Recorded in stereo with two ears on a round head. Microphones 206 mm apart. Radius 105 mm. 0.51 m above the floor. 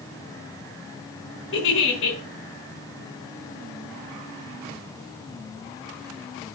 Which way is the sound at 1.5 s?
60° left (ahead or behind).